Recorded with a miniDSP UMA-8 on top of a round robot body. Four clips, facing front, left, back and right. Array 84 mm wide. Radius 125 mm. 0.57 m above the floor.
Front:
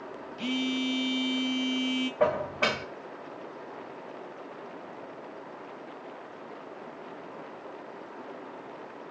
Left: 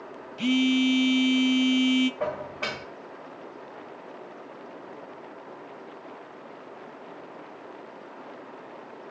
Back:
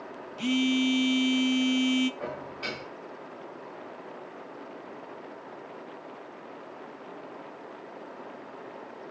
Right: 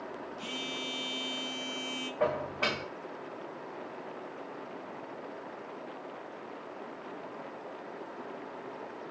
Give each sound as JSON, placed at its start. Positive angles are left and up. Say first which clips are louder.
{"t": 0.4, "sound": "a phone buzzing", "louder": "left 23 dB, back 5 dB", "azimuth_deg": 100, "distance_m": 1.9}
{"t": 2.2, "sound": "dishes clattering", "louder": "even, front 10 dB", "azimuth_deg": -5, "distance_m": 1.9}